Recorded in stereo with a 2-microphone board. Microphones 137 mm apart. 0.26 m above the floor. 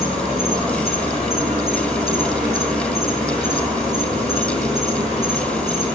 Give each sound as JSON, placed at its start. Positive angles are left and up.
{"t": 0.0, "sound": "an insect", "side_deg": 0, "distance_m": 5.5}